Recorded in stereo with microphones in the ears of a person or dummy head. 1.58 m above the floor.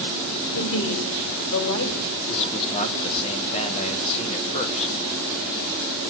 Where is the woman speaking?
70° left (ahead or behind), 2.5 m.